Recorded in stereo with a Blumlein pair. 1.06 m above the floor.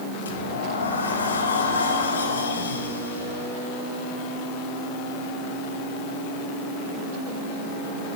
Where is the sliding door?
70° left, 4 m.